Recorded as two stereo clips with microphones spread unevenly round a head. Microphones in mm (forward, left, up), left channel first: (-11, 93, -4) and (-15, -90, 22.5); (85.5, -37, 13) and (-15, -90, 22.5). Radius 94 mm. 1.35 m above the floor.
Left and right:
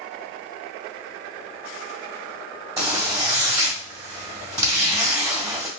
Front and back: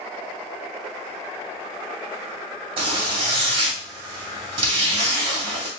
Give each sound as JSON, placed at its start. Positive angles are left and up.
{"t": 2.8, "sound": "a zipper", "azimuth_deg": -150, "distance_m": 1.6}